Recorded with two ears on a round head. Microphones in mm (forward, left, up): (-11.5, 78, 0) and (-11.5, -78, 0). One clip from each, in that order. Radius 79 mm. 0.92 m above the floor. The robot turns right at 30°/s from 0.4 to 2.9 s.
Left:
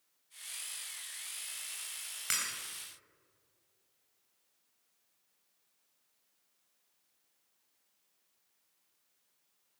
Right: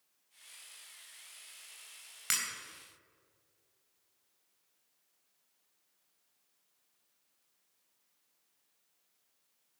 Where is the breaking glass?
10° right (ahead or behind), 3 m; by 2.5 s 5° right (ahead or behind), 3 m.